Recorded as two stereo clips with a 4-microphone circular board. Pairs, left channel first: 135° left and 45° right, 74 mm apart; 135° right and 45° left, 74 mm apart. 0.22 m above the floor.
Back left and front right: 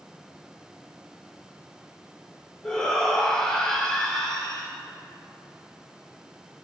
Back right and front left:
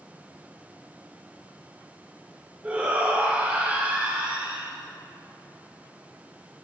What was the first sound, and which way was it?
A shout, 70° left.